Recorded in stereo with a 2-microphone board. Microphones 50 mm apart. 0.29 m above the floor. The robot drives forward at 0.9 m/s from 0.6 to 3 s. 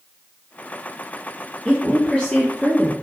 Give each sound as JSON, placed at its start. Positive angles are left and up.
{"t": 1.6, "sound": "a woman speaking", "side_deg": 25, "distance_m": 5.0}